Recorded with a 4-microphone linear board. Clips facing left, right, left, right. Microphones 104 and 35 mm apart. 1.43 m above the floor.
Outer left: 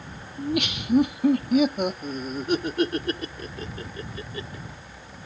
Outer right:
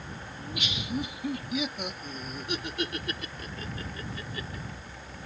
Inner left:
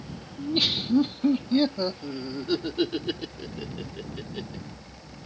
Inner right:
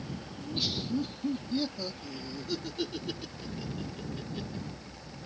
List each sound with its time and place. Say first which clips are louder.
0.4 s laughter: outer left 12 dB, inner left 9 dB; 65° left (ahead or behind); by 4.6 s 30° left (ahead or behind)